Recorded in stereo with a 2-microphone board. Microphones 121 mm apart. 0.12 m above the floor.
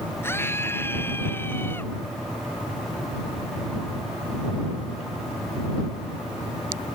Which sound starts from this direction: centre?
A scream, at 0.2 s.